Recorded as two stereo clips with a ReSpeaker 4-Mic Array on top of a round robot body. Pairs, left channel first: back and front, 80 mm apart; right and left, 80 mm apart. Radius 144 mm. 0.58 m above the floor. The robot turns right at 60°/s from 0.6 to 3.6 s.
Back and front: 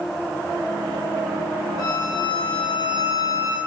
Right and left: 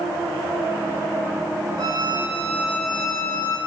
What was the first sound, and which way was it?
A violin, 130° left.